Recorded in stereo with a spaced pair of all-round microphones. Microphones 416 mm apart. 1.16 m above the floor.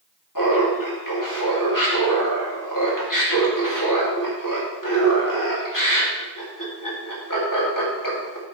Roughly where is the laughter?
Left.